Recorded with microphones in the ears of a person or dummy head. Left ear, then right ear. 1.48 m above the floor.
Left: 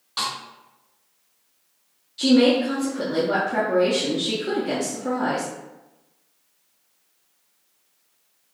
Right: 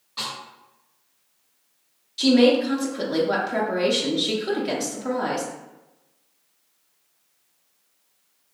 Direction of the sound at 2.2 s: 20° right (ahead or behind).